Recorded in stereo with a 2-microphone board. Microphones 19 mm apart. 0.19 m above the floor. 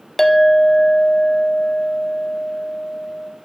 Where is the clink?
20° left (ahead or behind), 0.5 m.